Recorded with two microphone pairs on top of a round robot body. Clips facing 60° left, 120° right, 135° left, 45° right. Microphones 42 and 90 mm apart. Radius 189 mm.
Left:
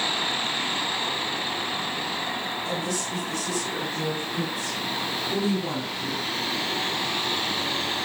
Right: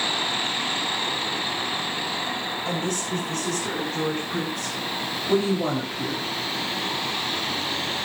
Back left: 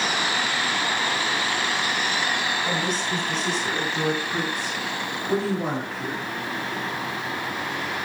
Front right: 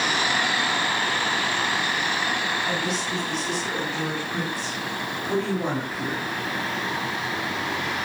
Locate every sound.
2.6 s a woman speaking: 175° right, 7.5 m; by 6.3 s 125° right, 4 m